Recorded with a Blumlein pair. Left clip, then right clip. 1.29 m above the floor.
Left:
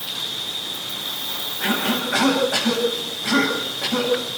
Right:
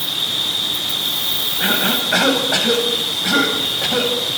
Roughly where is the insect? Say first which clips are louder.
Right 7 dB; ahead right.